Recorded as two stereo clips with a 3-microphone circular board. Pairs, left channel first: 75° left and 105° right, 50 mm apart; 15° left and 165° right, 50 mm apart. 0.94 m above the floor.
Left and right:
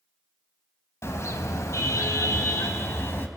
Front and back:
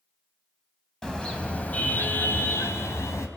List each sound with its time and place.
1.0 s a car horn: 95° left, 3 m; by 3.3 s 35° left, 3 m